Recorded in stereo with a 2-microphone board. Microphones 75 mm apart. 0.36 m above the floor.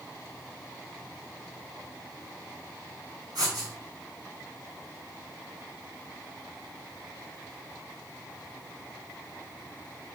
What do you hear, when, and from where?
3.4 s writing: 65° right (ahead or behind), 3 m